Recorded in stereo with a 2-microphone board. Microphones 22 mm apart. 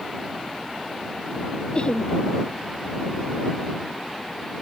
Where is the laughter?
45° left (ahead or behind).